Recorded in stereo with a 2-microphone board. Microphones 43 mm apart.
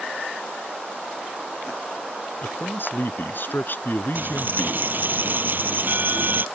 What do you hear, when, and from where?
2.4 s a man speaking: 55° left (ahead or behind)
4.2 s a dropped coin: 50° right (ahead or behind)